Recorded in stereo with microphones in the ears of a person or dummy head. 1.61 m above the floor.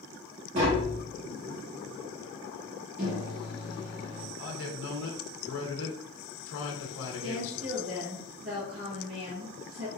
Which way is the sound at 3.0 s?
50° right (ahead or behind).